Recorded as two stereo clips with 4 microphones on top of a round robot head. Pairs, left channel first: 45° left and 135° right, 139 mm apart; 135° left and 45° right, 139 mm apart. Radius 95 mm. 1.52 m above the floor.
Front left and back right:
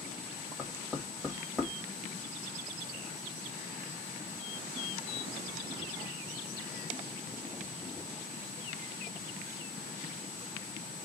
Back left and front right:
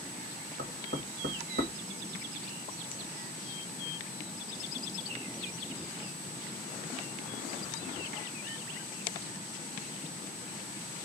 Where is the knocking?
40° right, 1.6 m.